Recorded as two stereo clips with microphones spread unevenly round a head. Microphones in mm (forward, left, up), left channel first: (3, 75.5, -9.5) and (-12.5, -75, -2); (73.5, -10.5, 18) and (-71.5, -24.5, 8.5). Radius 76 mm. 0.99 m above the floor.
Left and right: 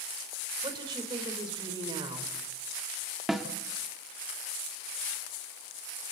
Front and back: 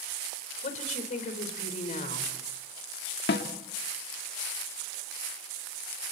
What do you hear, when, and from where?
0.6 s a woman speaking: 35° right, 4.5 m
3.3 s a snare drum: 10° right, 1.8 m